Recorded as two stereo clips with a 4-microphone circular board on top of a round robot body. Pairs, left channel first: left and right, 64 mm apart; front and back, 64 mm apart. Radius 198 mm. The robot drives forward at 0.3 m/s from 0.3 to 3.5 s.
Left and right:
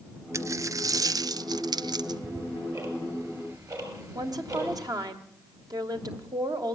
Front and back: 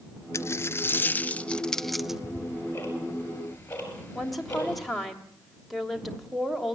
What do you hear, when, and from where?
0.3 s a dropped coin: 45° right, 0.7 m; by 2.2 s 95° right, 0.5 m
2.1 s ticking: 60° right, 6 m
4.2 s a woman speaking: 90° right, 2.5 m